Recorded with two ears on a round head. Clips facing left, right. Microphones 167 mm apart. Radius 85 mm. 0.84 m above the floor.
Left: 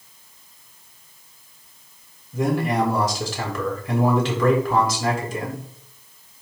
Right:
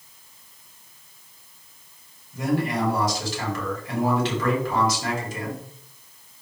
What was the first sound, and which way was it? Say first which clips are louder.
A man speaking: left 3 dB; 75° left (ahead or behind).